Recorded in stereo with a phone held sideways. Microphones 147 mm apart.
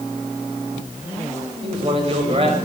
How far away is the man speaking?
About 4.5 m.